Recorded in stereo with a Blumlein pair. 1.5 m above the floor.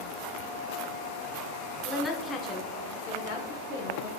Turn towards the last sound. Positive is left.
turn(degrees=65)